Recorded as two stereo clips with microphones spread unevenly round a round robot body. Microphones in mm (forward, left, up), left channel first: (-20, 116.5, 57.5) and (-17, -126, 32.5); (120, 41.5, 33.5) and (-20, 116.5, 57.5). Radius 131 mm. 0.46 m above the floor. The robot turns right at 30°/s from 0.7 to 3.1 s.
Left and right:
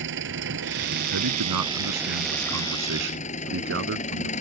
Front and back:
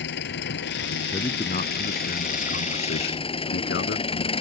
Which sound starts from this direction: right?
A man speaking, at 1.1 s.